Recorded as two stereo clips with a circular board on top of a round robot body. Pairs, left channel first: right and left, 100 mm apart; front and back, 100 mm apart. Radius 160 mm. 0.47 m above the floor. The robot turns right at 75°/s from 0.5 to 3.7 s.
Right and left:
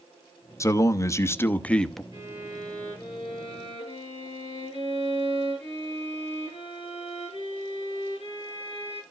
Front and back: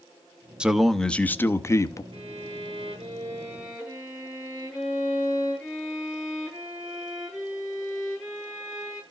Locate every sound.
0.6 s a man speaking: 110° right, 1.1 m; by 2.0 s 5° right, 1.1 m
2.1 s a violin: 145° left, 8.5 m; by 9.0 s 95° right, 8.5 m